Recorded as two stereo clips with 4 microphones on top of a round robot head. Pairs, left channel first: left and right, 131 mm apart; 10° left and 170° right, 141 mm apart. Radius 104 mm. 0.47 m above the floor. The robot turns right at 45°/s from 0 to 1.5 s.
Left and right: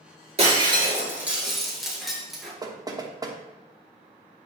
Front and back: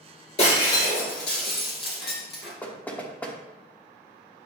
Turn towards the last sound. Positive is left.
turn(degrees=-60)